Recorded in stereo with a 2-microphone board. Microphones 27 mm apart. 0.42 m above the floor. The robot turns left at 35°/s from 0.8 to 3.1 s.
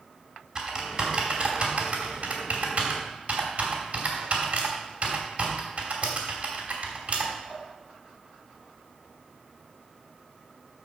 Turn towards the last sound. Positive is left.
turn(degrees=-55)  # may be behind; listen again after turning